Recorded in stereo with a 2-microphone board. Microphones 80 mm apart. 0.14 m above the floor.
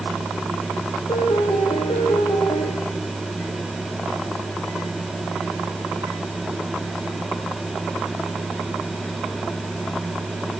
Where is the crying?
I don't hear crying.